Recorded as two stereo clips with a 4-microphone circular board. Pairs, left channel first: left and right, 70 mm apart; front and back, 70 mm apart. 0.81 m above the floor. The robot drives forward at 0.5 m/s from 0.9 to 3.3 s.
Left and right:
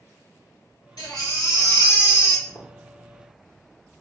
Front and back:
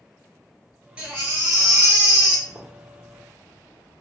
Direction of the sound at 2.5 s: 135° left.